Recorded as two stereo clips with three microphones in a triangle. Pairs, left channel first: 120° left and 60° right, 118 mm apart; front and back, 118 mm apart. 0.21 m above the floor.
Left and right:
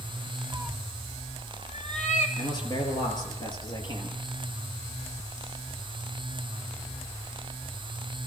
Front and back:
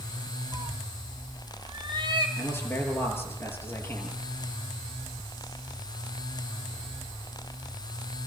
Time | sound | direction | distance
0.5 | a cat meowing | 115° right | 0.6 m
2.4 | a man speaking | 70° left | 5.5 m